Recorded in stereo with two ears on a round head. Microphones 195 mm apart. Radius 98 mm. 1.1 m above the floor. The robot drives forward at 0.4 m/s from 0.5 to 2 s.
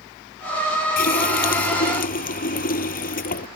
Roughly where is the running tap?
Left.